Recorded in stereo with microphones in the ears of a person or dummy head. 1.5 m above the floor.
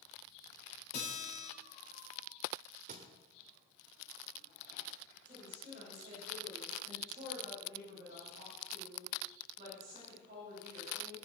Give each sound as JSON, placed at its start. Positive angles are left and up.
{"t": 0.9, "sound": "a guitar", "side_deg": 60, "distance_m": 5.5}
{"t": 2.9, "sound": "a thud", "side_deg": -45, "distance_m": 1.6}
{"t": 5.2, "sound": "a woman speaking", "side_deg": -35, "distance_m": 8.0}